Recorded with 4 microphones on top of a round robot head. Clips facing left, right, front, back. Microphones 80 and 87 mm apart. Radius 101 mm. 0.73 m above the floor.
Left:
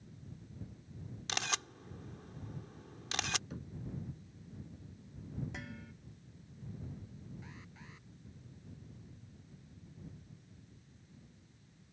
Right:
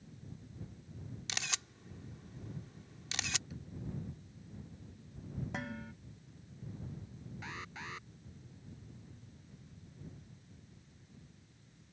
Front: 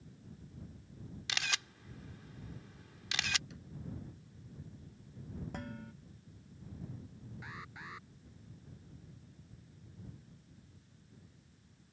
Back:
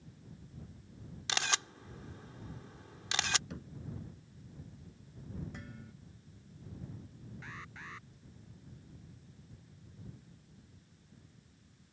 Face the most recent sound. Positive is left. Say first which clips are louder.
# right 8 dB, even
turn(degrees=-80)